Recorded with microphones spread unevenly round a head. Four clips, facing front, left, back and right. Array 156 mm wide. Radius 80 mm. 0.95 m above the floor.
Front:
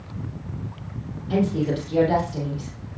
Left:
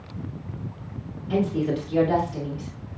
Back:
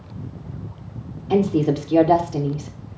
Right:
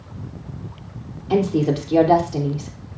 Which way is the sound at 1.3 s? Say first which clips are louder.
Right 5 dB, back 4 dB; 135° right.